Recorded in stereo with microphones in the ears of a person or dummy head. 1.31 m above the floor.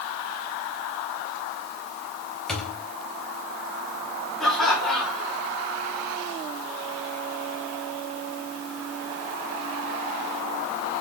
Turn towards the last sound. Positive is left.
turn(degrees=5)  # may be behind; listen again after turning